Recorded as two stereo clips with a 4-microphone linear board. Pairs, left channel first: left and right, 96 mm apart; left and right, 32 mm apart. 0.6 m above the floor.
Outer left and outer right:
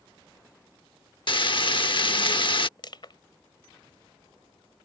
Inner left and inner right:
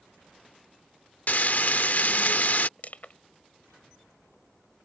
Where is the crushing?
55° left (ahead or behind).